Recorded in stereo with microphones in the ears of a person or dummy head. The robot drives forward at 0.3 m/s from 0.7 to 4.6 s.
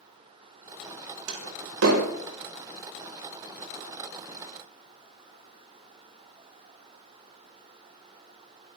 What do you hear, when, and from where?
1.3 s a door slam: 75° right (ahead or behind), 6 m